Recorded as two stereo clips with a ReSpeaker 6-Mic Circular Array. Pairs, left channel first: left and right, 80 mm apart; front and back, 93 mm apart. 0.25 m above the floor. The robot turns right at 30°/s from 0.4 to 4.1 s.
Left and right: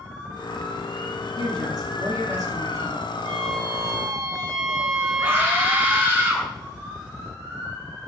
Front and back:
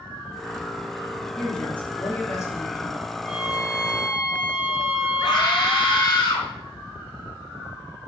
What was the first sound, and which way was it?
A woman speaking, 85° right.